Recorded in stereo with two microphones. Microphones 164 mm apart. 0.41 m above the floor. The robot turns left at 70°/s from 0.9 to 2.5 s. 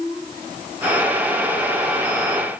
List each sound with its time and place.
Only background noise.